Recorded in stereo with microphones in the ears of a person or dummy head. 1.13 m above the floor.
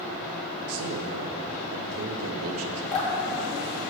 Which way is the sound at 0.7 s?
75° right (ahead or behind).